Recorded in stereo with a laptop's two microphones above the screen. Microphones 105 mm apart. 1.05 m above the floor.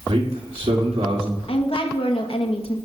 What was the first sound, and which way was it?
A man speaking, 70° right (ahead or behind).